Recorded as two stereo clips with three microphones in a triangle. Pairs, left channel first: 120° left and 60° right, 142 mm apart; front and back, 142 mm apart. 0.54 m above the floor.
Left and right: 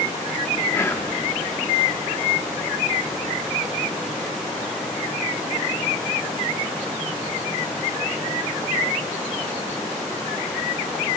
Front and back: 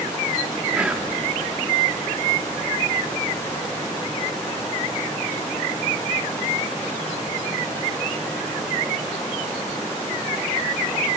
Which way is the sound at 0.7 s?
115° left.